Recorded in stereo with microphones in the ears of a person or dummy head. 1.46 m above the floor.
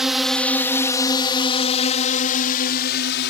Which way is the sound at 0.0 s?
5° right (ahead or behind).